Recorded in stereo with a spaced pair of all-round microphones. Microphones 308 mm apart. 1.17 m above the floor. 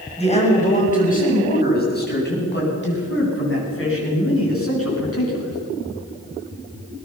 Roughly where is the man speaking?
Centre.